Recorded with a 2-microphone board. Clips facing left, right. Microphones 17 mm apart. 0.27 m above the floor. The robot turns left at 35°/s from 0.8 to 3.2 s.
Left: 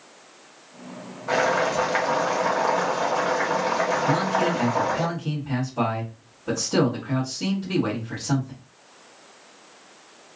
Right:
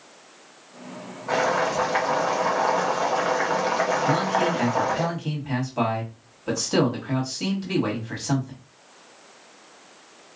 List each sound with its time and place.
1.3 s boiling: 50° left, 1.3 m; by 5.1 s 15° right, 1.3 m
4.1 s a man speaking: 35° right (ahead or behind), 1.9 m